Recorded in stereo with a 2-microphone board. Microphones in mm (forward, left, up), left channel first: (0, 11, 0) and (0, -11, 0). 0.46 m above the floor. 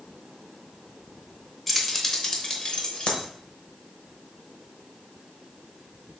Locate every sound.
1.7 s keys jangling: 10° left (ahead or behind), 0.9 m; by 3.2 s 60° left (ahead or behind), 1.1 m